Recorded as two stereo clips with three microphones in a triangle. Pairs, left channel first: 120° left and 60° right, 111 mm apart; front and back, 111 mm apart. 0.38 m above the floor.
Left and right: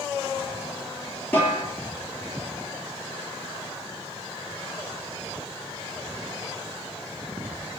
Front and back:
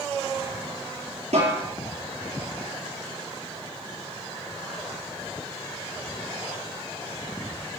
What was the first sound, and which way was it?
A snare drum, 165° right.